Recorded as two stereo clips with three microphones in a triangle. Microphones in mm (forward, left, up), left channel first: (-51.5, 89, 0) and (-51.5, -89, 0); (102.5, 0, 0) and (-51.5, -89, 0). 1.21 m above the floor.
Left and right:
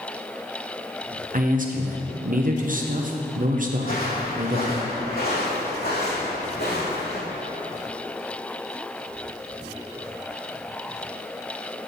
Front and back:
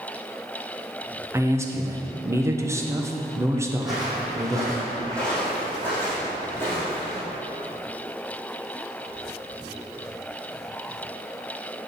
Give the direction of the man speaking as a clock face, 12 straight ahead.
3 o'clock.